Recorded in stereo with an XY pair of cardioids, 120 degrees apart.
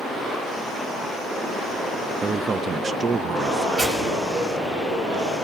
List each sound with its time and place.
2.2 s a man speaking: 35° right, 0.6 m
3.8 s tearing paper: 35° right, 5.5 m